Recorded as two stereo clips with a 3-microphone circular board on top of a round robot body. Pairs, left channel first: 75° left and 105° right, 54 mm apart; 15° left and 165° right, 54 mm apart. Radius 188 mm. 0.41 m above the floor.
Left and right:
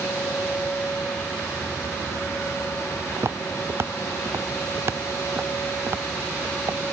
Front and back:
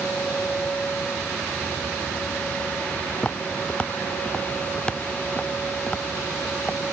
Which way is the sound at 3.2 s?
55° right.